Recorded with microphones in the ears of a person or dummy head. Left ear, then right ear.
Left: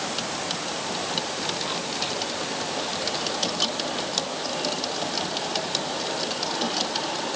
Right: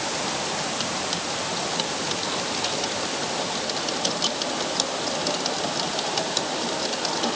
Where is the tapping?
No tapping in this recording.